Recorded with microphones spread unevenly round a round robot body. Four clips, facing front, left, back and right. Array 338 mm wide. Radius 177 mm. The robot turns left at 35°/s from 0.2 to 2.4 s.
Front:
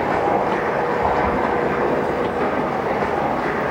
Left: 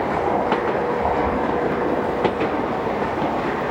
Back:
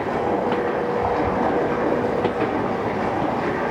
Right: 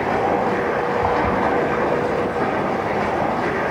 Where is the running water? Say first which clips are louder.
Right 1 dB, front 3 dB; 55° right, 6 m; by 3.7 s 130° right, 6 m.